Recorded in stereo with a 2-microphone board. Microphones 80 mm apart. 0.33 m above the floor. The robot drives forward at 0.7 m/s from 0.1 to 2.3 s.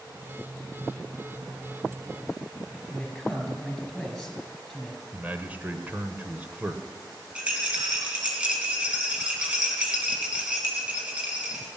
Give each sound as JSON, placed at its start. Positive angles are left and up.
{"t": 2.9, "sound": "a man speaking", "side_deg": 0, "distance_m": 4.5}
{"t": 5.1, "sound": "a man speaking", "side_deg": -20, "distance_m": 1.1}
{"t": 7.3, "sound": "a rattle", "side_deg": -15, "distance_m": 3.0}